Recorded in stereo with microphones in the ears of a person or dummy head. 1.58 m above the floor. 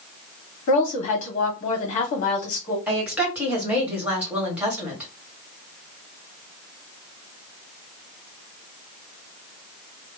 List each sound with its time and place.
0.7 s a woman speaking: 45° left (ahead or behind), 1.5 m
2.9 s a woman speaking: centre (ahead or behind), 1.5 m